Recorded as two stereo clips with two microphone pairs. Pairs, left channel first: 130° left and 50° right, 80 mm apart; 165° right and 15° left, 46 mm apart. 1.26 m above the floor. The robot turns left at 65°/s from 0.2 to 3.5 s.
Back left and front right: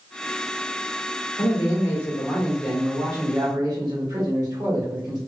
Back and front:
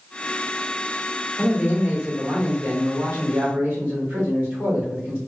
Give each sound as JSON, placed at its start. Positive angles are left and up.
{"t": 1.4, "sound": "a man speaking", "azimuth_deg": 115, "distance_m": 1.7}